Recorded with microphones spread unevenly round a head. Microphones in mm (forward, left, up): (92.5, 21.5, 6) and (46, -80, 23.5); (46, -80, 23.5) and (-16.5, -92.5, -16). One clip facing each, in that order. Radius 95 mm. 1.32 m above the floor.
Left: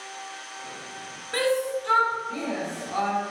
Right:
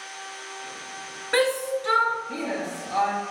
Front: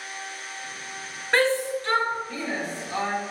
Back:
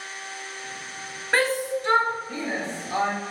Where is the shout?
115° right, 0.7 m; by 3.1 s 120° right, 1.8 m.